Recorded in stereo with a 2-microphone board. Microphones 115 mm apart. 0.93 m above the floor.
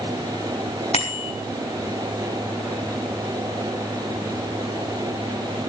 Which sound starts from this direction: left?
A bicycle bell, at 0.9 s.